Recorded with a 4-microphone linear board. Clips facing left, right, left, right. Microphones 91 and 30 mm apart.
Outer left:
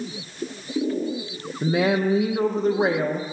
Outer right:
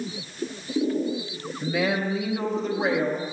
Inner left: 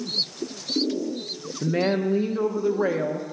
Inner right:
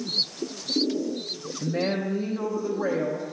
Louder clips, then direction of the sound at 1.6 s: Outer left 5 dB, inner left 4 dB; 40° left (ahead or behind).